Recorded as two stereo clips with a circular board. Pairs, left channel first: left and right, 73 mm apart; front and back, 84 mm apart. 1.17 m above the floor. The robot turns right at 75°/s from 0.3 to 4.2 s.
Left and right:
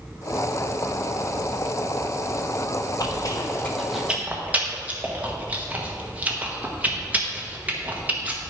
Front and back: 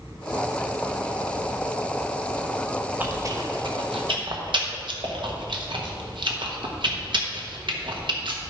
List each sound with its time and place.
3.0 s chewing: 110° left, 1.1 m; by 8.4 s 160° right, 1.1 m